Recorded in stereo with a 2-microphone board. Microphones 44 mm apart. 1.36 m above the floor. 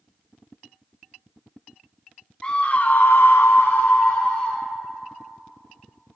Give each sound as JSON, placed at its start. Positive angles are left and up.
{"t": 2.4, "sound": "a scream", "side_deg": 20, "distance_m": 0.7}